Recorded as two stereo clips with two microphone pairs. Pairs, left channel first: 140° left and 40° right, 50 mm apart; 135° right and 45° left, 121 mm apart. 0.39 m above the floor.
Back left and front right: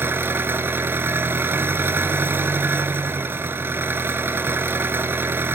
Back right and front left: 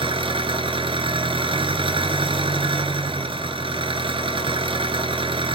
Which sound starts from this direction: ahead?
An engine running, at 0.0 s.